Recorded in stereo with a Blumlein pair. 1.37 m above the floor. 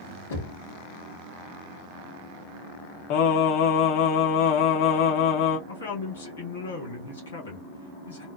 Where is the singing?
45° left, 0.7 m.